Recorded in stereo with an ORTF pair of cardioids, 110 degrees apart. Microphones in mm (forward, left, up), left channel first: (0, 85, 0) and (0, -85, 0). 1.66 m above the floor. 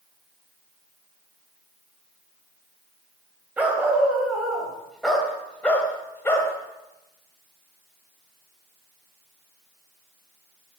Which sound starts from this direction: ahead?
A dog barking, at 3.6 s.